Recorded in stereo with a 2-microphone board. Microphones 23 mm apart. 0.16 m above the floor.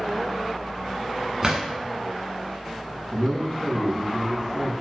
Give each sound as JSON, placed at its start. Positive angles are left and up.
{"t": 1.4, "sound": "a drawer", "side_deg": -30, "distance_m": 0.8}
{"t": 3.1, "sound": "a man speaking", "side_deg": 30, "distance_m": 1.1}